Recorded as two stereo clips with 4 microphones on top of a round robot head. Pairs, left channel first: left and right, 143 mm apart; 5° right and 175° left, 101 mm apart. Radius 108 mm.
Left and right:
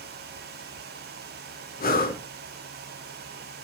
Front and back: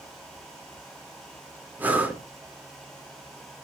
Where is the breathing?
105° left, 3 m.